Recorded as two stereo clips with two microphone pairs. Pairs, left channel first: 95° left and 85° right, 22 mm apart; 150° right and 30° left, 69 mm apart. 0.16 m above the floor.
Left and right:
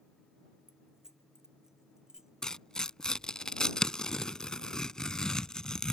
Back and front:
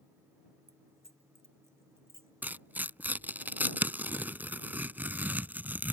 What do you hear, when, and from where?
0.7 s keys jangling: 15° right; by 2.3 s 20° right
2.4 s tearing paper: 75° left